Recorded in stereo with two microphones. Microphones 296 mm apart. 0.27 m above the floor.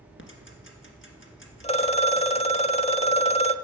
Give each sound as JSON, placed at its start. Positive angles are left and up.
{"t": 0.2, "sound": "ticking", "side_deg": 45, "distance_m": 2.0}
{"t": 1.6, "sound": "a phone ringing", "side_deg": 20, "distance_m": 0.6}